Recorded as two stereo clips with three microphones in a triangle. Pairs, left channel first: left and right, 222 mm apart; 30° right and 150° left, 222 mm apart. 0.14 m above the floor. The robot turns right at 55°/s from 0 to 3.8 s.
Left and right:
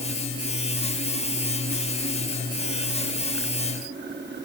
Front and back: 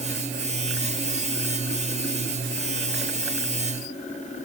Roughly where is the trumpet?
I don't hear a trumpet.